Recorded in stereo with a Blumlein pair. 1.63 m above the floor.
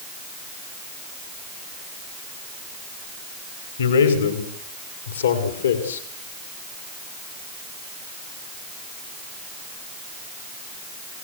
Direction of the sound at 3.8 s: 65° left.